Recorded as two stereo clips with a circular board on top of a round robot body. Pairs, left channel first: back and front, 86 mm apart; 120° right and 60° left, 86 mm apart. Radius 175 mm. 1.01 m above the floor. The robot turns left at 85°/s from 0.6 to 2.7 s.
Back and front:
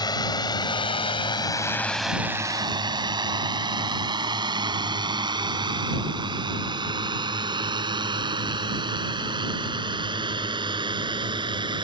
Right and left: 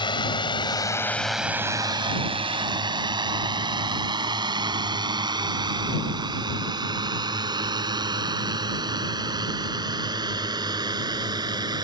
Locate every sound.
0.0 s a drone: 145° right; by 11.8 s 25° left